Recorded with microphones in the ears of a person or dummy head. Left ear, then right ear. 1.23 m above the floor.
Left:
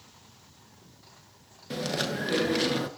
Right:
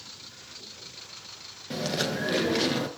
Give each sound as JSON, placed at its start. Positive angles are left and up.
{"t": 1.7, "sound": "chewing", "side_deg": 5, "distance_m": 1.2}